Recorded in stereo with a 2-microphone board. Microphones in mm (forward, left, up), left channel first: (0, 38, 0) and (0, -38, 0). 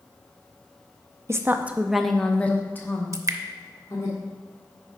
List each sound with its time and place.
1.3 s a woman speaking: 35° right (ahead or behind), 0.6 m; by 4.1 s 40° left (ahead or behind), 1.7 m
3.1 s dripping: 45° right (ahead or behind), 0.5 m